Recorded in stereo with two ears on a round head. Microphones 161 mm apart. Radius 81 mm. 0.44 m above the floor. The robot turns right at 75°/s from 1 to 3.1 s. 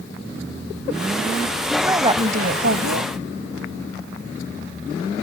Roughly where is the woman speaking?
Behind.